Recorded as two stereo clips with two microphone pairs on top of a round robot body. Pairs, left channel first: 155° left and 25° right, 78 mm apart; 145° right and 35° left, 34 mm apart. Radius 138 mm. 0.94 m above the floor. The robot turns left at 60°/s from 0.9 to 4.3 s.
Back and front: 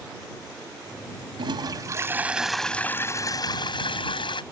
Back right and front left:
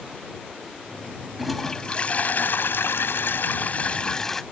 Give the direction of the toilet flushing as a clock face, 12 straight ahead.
2 o'clock.